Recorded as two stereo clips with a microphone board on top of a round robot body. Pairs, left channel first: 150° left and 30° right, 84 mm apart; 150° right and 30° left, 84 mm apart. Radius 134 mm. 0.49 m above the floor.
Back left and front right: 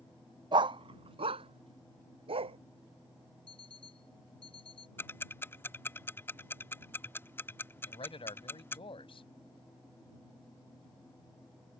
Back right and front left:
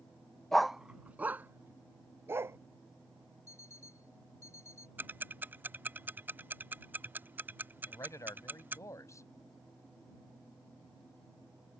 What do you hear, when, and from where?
0.5 s a dog barking: 65° right; by 2.6 s 35° right
3.5 s an alarm clock: 150° left
5.0 s ticking: 90° left
7.9 s a man speaking: 155° left